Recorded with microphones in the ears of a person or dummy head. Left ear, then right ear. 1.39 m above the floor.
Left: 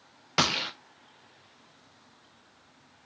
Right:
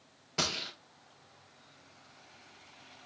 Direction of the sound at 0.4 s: 40° left (ahead or behind).